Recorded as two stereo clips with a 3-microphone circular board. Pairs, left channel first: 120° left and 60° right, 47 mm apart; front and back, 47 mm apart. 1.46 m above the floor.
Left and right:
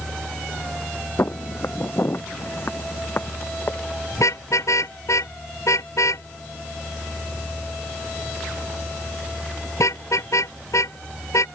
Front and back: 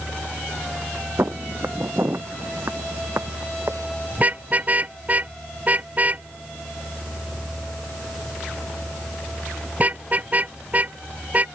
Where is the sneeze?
I don't hear a sneeze.